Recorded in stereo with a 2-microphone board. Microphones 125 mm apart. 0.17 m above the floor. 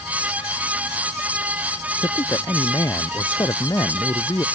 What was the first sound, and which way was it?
A man speaking, 25° left (ahead or behind).